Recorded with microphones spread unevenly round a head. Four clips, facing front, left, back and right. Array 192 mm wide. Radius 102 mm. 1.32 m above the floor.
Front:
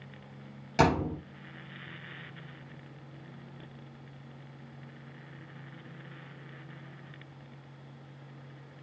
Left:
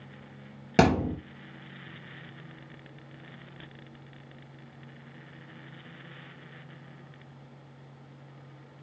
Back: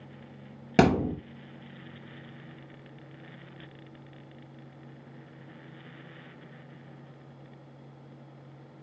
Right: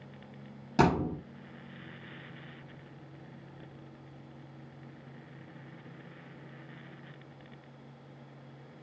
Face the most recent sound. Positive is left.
turn(degrees=140)